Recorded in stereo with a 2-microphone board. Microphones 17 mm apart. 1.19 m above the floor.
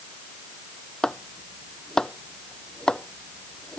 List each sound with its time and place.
1.0 s chopping: 60° left (ahead or behind)